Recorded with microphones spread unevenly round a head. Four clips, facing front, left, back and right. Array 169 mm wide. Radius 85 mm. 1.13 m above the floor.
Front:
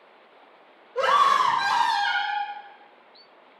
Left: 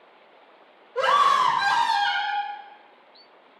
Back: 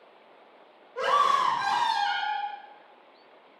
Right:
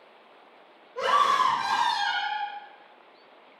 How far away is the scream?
About 4 m.